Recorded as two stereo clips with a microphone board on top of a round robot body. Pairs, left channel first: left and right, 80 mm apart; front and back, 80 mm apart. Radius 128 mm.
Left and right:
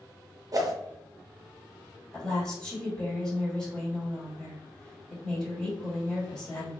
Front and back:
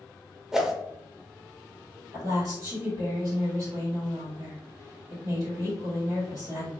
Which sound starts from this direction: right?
A whoosh, at 0.5 s.